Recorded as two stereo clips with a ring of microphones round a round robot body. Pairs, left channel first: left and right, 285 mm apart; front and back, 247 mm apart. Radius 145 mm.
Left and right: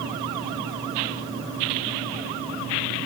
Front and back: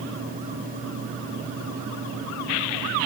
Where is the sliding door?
I don't hear a sliding door.